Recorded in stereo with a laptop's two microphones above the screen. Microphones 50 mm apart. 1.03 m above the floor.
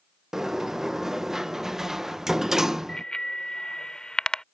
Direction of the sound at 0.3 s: 10° right (ahead or behind).